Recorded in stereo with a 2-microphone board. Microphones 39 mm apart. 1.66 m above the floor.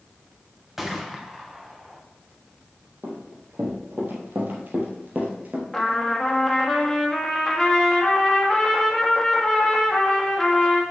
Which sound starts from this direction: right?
Running footsteps, at 3.0 s.